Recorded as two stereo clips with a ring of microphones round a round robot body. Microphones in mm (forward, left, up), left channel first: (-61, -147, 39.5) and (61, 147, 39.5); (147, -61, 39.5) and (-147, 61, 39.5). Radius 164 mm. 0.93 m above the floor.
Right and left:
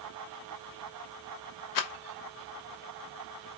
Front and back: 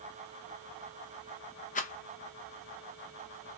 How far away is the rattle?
About 1.0 m.